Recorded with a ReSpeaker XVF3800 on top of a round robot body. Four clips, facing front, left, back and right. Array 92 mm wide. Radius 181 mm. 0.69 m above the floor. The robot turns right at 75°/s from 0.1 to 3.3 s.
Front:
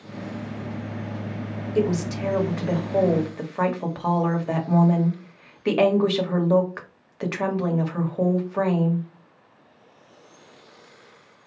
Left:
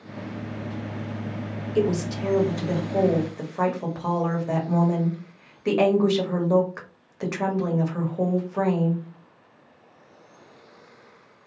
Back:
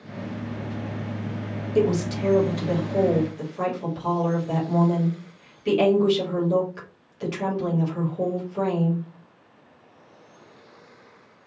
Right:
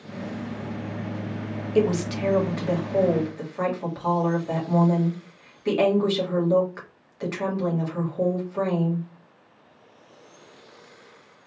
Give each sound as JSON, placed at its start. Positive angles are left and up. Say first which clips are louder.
{"t": 1.8, "sound": "a woman speaking", "louder": "right 1 dB, back 2 dB", "azimuth_deg": -100, "distance_m": 1.5}